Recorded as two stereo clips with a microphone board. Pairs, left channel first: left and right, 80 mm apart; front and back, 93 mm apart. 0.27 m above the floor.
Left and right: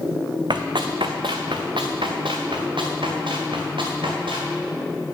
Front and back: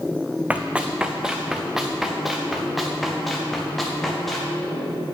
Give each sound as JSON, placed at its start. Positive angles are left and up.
{"t": 0.5, "sound": "running footsteps", "azimuth_deg": -105, "distance_m": 0.8}